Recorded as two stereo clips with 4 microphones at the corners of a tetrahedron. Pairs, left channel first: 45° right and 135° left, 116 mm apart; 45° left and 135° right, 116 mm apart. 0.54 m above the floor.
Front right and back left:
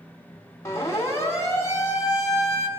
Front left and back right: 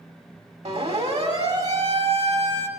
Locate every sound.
0.7 s a siren: 110° right, 5 m; by 2.7 s 100° right, 4 m